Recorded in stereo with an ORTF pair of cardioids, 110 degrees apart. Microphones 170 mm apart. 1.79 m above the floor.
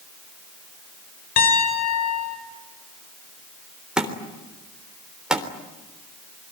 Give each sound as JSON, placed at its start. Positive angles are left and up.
{"t": 1.4, "sound": "a piano", "azimuth_deg": 60, "distance_m": 5.5}
{"t": 4.0, "sound": "a thud", "azimuth_deg": -5, "distance_m": 3.5}